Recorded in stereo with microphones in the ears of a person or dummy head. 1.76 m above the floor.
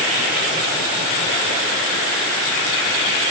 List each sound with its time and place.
Only background noise.